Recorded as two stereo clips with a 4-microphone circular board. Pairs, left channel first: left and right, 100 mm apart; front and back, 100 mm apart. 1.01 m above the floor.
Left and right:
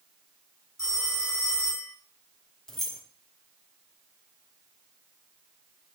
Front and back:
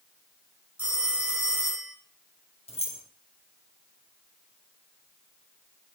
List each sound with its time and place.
0.8 s a phone ringing: 140° right, 1.2 m
2.7 s keys jangling: 5° left, 0.6 m